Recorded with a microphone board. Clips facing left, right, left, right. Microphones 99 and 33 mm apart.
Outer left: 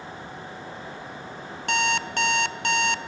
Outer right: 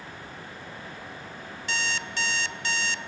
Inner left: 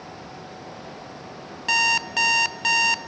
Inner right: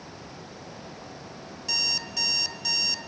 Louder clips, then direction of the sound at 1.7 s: Outer left 8 dB, inner left 11 dB; 55° left (ahead or behind).